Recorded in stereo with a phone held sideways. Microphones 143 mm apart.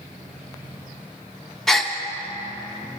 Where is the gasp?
Centre (ahead or behind), 0.6 m.